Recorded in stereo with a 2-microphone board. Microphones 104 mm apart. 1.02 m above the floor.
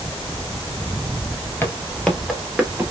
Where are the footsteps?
20° left (ahead or behind), 1.2 m; by 2.9 s 20° right (ahead or behind), 1.3 m.